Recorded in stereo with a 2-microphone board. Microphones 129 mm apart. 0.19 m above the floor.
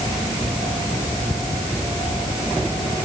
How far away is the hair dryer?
No hair dryer in this recording.